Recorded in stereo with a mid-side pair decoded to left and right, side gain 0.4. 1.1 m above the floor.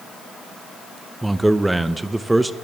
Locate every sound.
1.2 s a man speaking: 15° right, 0.6 m